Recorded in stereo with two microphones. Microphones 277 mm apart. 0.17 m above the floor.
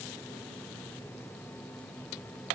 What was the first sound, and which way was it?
Only background noise.